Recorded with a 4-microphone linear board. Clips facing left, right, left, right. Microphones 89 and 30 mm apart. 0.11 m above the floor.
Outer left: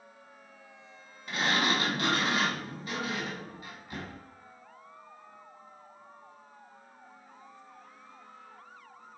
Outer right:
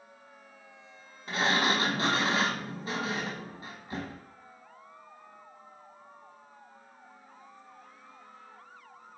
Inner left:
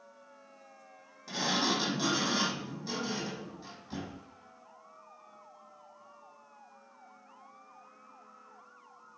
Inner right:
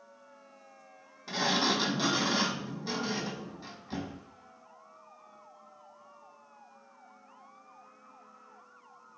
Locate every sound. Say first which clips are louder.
1.3 s a sliding door: outer right 1 dB, inner right 2 dB; 30° right (ahead or behind), 1.0 m